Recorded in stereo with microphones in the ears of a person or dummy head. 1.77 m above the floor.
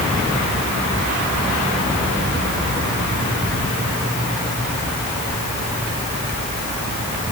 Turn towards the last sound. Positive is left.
No sound to turn to.